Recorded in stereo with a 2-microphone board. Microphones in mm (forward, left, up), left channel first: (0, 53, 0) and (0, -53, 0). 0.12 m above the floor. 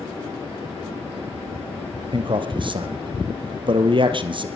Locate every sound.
2.1 s a man speaking: 50° right (ahead or behind), 2.5 m